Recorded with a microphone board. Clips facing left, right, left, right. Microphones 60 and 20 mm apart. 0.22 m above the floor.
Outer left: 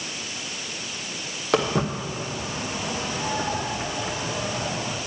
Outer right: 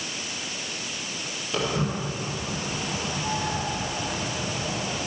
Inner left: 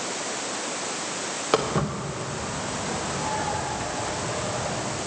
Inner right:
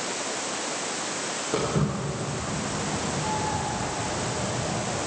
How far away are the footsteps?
About 2.5 m.